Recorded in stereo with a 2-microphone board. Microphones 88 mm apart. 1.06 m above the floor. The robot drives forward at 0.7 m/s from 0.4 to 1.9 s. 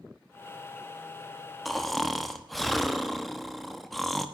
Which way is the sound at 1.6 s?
Centre (ahead or behind).